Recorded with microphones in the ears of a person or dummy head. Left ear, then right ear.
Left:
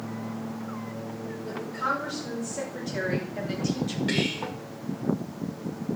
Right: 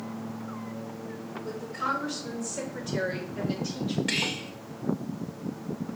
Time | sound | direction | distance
1.4 | a woman speaking | 15° right (ahead or behind) | 4 m
4.1 | whispering | 30° right (ahead or behind) | 1.4 m